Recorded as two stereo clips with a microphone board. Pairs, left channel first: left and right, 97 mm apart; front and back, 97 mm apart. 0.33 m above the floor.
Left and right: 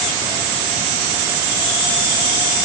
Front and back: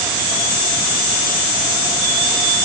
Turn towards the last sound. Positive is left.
No sound to turn to.